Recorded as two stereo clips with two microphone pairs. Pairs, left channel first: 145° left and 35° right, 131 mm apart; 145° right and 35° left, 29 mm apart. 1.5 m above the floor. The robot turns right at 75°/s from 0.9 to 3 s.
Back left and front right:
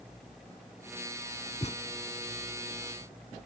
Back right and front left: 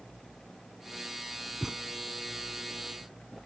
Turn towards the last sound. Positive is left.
turn(degrees=-150)